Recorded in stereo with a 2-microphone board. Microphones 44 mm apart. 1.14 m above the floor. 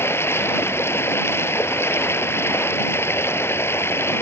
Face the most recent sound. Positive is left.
turn(degrees=65)  # may be behind; listen again after turning